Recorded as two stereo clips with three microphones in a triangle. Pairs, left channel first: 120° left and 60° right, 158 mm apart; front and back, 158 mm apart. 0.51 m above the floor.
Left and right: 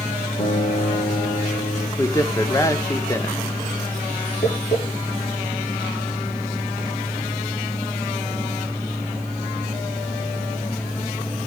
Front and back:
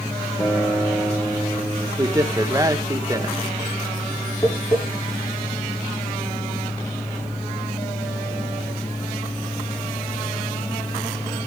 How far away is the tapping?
About 9 m.